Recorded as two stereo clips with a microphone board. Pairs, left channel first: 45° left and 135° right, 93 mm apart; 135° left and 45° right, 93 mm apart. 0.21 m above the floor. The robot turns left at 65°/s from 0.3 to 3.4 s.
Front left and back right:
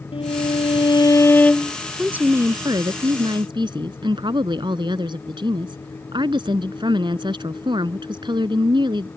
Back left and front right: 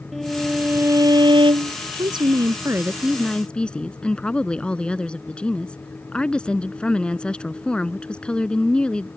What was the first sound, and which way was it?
A violin, 50° left.